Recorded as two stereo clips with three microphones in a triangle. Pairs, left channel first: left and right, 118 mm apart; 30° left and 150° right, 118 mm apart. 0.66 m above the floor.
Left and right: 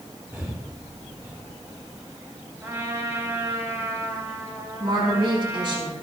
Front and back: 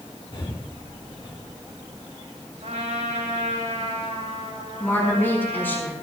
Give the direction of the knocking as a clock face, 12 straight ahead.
I don't hear knocking.